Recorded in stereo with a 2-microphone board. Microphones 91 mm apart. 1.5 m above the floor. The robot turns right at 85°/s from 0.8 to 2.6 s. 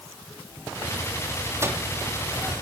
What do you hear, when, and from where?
1.6 s a microwave: 30° right (ahead or behind), 3 m; by 1.8 s 10° right (ahead or behind), 3 m